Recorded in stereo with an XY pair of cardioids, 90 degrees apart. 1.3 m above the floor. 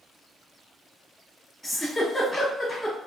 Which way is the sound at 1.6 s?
15° left.